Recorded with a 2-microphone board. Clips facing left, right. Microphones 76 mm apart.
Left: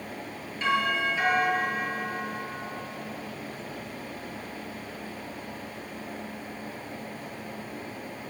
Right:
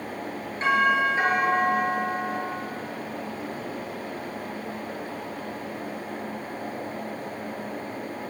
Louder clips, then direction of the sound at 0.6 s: Right 5 dB; 40° right (ahead or behind).